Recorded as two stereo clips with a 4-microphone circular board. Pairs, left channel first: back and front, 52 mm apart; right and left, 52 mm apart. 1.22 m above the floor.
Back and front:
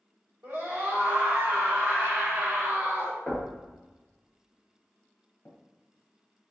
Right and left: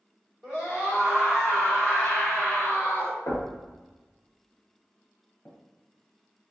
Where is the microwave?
No microwave in this recording.